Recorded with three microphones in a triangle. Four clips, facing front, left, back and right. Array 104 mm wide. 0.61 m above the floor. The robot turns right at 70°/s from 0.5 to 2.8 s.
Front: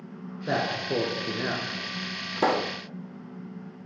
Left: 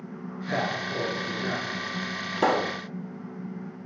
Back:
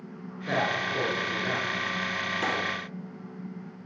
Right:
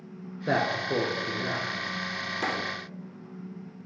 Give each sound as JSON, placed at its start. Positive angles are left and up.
{"t": 0.5, "sound": "a man speaking", "azimuth_deg": -70, "distance_m": 9.5}
{"t": 2.4, "sound": "a pop", "azimuth_deg": 45, "distance_m": 0.7}